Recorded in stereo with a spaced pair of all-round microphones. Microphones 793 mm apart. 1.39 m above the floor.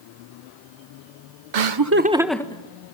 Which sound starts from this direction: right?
Laughter, at 1.5 s.